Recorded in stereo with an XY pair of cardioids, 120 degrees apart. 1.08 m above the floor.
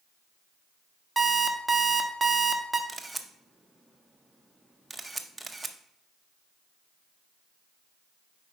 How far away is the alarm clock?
About 0.9 m.